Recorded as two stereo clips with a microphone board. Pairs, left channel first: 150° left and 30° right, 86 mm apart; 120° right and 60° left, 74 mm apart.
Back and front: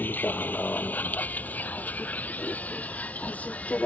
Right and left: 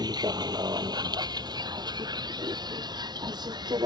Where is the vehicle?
80° left; by 3.9 s 75° left.